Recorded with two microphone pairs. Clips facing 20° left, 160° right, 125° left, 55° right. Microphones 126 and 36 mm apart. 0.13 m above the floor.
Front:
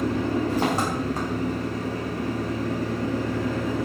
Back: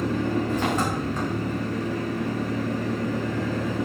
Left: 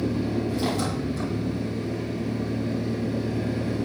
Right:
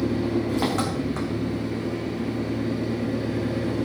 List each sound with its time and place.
0.0 s an engine running: 30° right, 4.5 m